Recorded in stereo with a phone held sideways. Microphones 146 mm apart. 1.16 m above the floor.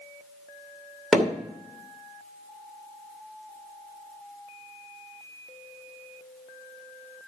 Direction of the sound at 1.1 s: Centre (ahead or behind).